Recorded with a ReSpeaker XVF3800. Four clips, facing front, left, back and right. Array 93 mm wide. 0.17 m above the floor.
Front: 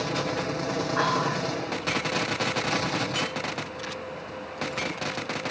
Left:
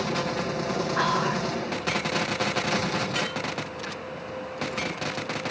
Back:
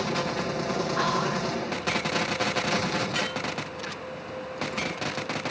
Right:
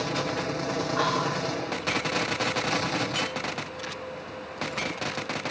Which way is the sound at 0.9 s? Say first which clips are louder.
Left 2 dB, front 3 dB; 60° left.